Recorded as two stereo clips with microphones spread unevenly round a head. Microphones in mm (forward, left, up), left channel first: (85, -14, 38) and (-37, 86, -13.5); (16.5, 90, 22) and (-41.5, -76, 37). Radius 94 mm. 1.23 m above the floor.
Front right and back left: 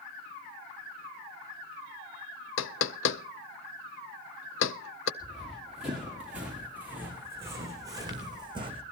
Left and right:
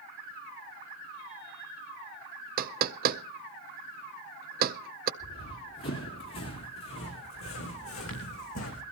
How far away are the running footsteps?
About 8 m.